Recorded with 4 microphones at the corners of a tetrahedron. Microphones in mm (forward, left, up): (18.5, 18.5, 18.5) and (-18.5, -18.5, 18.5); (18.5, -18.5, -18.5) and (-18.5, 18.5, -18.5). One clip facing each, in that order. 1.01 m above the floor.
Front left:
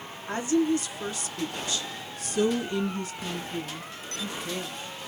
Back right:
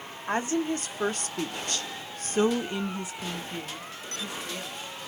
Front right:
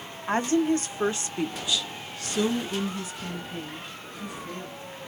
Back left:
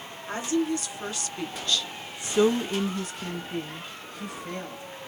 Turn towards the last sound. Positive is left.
turn(degrees=130)